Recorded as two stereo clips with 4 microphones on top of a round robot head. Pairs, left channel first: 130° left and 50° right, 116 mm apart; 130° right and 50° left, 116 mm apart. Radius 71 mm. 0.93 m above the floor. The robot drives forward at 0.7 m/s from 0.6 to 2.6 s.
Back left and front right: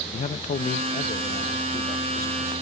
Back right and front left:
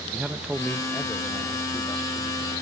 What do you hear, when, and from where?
0.1 s a man speaking: 130° left; by 2.5 s 165° left